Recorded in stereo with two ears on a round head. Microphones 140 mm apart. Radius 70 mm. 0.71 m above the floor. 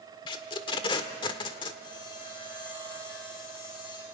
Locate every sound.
0.3 s tape being pulled: 30° left (ahead or behind), 1.3 m
1.8 s sawing: 30° left (ahead or behind), 7.5 m